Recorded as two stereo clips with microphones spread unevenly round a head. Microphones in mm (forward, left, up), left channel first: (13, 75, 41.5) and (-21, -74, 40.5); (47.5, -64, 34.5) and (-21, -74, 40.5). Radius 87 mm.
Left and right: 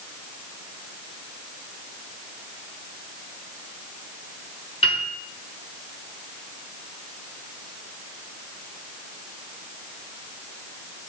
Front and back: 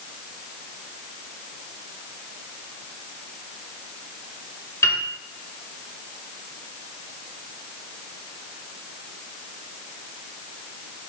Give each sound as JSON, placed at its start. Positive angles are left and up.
{"t": 4.8, "sound": "a piano", "azimuth_deg": 45, "distance_m": 1.1}